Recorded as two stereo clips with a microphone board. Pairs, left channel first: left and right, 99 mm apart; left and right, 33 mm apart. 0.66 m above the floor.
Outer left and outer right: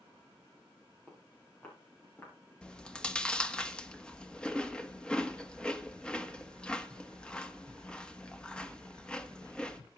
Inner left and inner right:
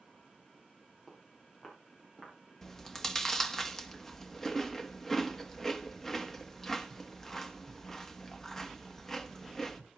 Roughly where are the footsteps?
Centre.